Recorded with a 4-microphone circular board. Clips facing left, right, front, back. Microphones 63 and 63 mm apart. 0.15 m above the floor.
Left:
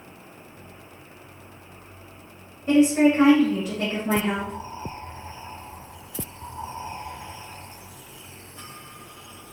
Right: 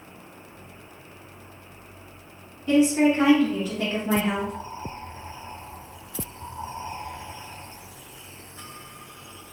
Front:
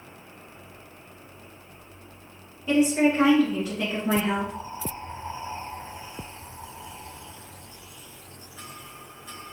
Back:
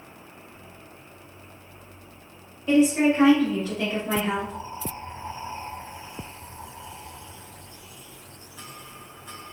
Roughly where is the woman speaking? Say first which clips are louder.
Left 2 dB, back 2 dB; left.